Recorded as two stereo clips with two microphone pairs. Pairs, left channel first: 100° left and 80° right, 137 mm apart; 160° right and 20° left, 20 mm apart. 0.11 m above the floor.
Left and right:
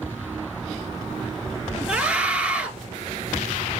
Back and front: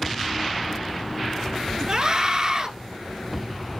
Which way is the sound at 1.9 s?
5° right.